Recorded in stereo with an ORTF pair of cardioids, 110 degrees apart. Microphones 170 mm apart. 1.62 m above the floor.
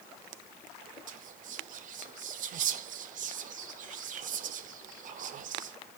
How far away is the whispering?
About 0.9 m.